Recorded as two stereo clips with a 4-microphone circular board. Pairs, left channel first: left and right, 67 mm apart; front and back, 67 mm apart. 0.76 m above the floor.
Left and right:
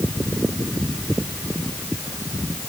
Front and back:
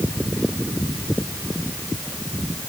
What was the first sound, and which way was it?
Only background noise.